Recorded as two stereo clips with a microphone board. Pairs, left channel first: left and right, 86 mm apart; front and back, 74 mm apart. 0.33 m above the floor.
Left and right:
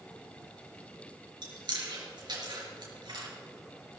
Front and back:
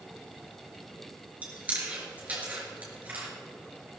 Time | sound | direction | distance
1.4 | chewing | 110° right | 4 m